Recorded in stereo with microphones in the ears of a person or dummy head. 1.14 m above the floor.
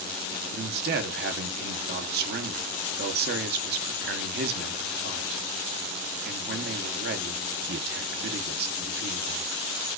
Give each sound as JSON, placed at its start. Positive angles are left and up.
{"t": 0.5, "sound": "a man speaking", "side_deg": -40, "distance_m": 0.6}